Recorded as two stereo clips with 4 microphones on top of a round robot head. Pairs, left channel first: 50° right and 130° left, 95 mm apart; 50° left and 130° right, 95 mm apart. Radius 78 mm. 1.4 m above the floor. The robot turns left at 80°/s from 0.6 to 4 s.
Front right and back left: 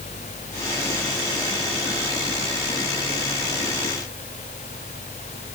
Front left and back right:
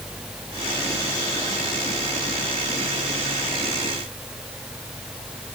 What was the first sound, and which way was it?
Only background noise.